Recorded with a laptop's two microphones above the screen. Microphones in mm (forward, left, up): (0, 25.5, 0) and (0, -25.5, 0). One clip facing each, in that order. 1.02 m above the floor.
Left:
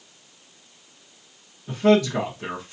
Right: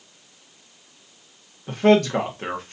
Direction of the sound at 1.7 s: 50° right (ahead or behind).